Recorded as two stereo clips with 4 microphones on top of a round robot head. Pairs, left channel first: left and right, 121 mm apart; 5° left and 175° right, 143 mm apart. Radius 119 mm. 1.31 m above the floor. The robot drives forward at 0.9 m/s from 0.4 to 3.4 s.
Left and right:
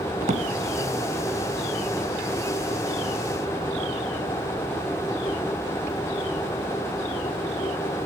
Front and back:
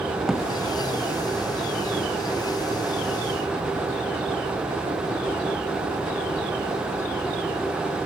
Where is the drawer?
90° right, 0.8 m; by 0.5 s 95° right, 0.8 m.